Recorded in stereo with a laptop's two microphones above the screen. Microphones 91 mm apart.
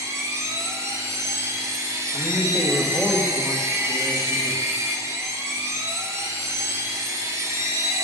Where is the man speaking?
10° right (ahead or behind), 1.8 m.